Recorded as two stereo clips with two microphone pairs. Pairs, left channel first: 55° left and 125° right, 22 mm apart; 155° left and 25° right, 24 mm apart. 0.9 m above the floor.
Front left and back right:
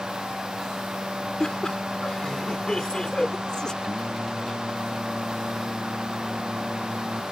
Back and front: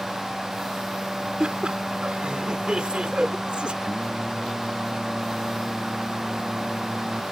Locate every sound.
1.4 s laughter: 5° left
3.8 s singing: 75° right